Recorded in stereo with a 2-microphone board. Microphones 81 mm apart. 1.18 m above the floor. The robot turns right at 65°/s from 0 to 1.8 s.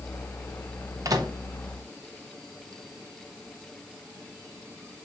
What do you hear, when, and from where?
1.1 s a microwave: 45° right (ahead or behind), 1.0 m; by 1.3 s 60° right (ahead or behind), 1.0 m